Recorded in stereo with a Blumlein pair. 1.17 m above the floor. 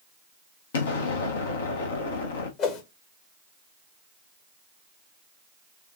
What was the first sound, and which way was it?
An explosion, 60° left.